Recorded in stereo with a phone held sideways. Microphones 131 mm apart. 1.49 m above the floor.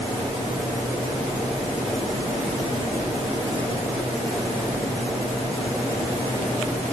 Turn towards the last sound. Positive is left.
No sound to turn to.